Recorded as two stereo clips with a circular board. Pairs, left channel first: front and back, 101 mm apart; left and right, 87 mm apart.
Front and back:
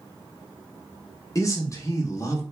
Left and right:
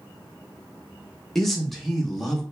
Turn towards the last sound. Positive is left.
turn(degrees=0)